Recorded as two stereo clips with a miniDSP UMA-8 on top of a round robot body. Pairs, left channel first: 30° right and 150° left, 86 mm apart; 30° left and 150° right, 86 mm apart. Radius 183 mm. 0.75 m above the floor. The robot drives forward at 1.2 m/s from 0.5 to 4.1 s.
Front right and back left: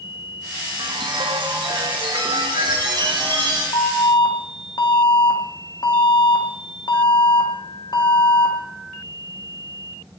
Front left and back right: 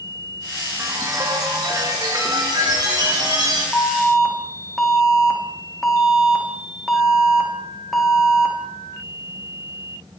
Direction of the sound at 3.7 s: 50° right.